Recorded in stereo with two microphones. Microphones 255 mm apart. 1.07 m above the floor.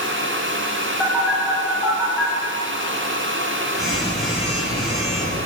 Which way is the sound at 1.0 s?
Centre (ahead or behind).